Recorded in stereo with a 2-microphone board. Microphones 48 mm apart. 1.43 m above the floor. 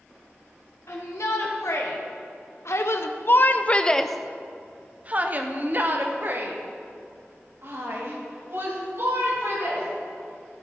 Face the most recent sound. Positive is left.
turn(degrees=-60)  # may be behind; listen again after turning